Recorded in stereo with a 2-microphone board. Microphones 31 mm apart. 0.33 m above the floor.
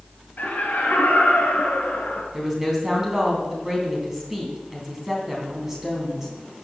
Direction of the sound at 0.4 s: 65° left (ahead or behind).